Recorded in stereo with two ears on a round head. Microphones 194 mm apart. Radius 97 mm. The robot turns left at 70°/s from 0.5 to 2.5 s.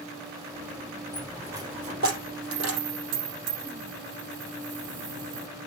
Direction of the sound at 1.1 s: 10° left (ahead or behind).